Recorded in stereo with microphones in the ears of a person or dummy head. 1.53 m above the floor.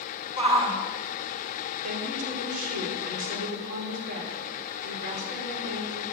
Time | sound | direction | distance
0.4 | a shout | 30° right (ahead or behind) | 2.5 m
1.8 | a woman speaking | 45° right (ahead or behind) | 5 m